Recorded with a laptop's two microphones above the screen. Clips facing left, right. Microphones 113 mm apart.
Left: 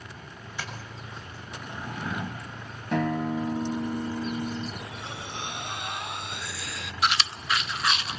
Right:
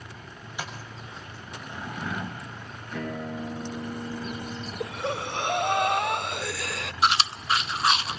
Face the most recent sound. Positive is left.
turn(degrees=-30)  # may be behind; listen again after turning